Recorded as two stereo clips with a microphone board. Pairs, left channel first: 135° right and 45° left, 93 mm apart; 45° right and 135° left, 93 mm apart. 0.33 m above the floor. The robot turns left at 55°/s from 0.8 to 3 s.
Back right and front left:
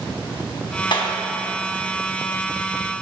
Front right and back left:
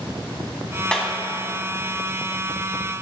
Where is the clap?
125° right, 2.5 m; by 1.1 s 135° right, 2.5 m.